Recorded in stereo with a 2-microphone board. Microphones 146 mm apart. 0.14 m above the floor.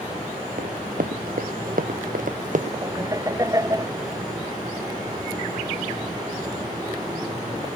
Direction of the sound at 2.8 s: 20° right (ahead or behind).